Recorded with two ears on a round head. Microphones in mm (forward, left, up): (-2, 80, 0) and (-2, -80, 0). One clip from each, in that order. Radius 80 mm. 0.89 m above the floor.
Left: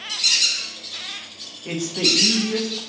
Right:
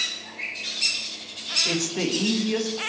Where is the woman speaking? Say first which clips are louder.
Left 5 dB; 25° right (ahead or behind), 1.2 m.